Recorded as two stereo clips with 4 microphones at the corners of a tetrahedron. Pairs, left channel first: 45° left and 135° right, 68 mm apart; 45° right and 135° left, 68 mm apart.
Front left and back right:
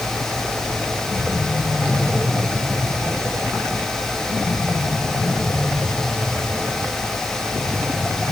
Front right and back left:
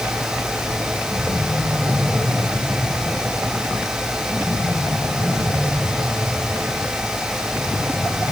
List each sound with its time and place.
Only background noise.